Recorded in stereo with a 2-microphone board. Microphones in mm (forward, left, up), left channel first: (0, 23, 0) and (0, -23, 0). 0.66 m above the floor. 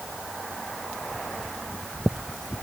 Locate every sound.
Only background noise.